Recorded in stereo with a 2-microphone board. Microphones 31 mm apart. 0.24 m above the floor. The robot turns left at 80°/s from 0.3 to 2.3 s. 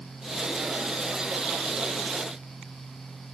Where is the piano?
I don't hear a piano.